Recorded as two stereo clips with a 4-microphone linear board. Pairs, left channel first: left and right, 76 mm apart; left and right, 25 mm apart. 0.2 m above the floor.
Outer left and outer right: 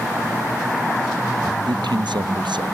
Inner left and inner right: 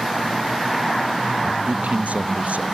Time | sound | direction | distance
1.7 | a man speaking | 75° right (ahead or behind) | ?